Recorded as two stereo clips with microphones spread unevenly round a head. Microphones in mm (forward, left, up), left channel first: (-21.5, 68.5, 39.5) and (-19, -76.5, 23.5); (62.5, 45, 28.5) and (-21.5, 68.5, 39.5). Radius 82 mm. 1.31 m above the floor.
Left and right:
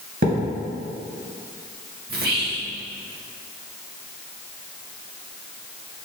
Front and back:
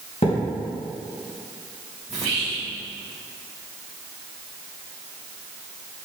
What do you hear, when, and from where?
0.2 s a thud: 55° right, 2.5 m
2.1 s whispering: 110° right, 1.5 m